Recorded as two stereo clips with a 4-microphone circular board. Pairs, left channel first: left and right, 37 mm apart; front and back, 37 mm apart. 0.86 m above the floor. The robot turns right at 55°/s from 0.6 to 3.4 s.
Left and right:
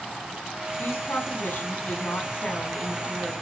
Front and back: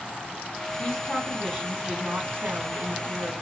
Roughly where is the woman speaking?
Ahead left.